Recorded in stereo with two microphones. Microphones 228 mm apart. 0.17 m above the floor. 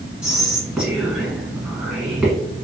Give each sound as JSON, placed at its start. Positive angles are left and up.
{"t": 0.2, "sound": "whispering", "side_deg": 0, "distance_m": 1.4}